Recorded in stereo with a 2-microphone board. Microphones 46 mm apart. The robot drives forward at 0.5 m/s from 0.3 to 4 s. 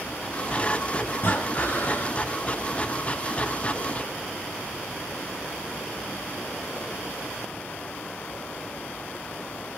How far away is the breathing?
About 1.6 m.